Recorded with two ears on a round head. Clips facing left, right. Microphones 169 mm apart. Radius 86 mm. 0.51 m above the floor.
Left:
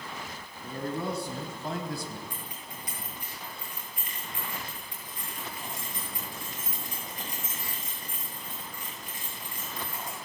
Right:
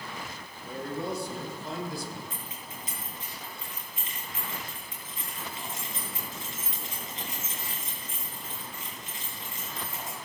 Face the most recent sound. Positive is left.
turn(degrees=-20)  # may be behind; listen again after turning